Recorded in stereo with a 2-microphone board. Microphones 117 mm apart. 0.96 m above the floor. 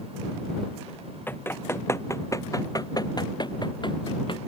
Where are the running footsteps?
15° left (ahead or behind); by 4.5 s 45° left (ahead or behind).